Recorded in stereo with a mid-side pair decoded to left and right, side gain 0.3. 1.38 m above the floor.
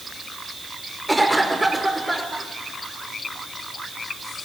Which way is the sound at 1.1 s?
10° right.